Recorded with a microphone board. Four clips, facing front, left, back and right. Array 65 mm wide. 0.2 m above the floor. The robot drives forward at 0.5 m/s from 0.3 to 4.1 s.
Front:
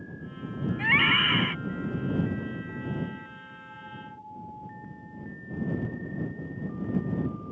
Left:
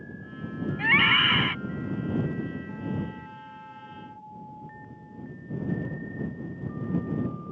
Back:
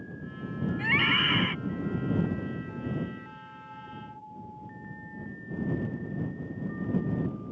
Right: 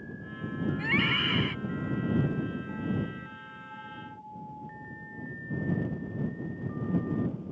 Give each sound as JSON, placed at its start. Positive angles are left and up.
{"t": 0.8, "sound": "a scream", "azimuth_deg": 60}